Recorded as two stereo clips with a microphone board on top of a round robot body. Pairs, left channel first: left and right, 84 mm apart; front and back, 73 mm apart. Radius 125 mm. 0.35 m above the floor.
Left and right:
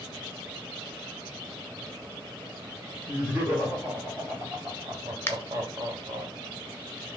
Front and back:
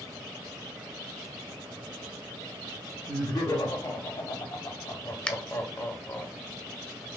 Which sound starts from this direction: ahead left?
A finger snap, at 5.3 s.